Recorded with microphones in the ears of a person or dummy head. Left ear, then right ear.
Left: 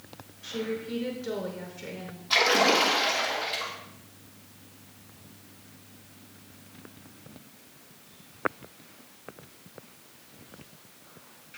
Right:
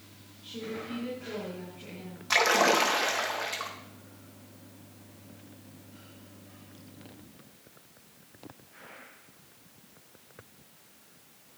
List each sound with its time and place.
0.4 s a woman speaking: 45° left (ahead or behind), 5 m
2.3 s a splash: 50° right (ahead or behind), 1.5 m